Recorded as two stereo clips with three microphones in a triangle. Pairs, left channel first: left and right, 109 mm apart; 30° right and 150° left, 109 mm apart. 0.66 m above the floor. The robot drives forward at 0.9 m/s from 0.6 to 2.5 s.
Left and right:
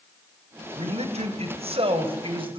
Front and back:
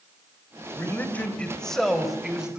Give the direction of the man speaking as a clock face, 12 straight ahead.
3 o'clock.